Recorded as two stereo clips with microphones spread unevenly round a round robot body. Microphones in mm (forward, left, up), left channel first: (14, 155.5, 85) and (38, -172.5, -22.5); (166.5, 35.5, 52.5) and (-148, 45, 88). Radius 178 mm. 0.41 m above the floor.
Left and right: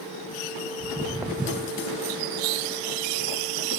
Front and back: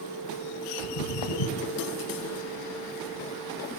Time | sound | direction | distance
0.8 | footsteps | straight ahead | 1.5 m